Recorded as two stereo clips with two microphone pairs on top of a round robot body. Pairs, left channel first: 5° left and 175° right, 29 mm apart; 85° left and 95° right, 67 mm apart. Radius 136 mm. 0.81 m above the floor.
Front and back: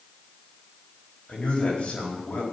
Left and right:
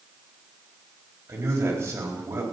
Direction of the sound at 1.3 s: 40° right.